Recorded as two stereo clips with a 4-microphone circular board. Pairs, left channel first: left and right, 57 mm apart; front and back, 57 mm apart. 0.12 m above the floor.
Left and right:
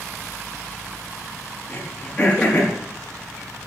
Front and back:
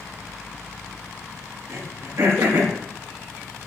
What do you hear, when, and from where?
1.7 s throat clearing: 150° left, 6 m